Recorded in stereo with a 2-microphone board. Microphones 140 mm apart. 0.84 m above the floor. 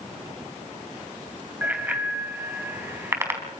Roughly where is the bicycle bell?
Centre.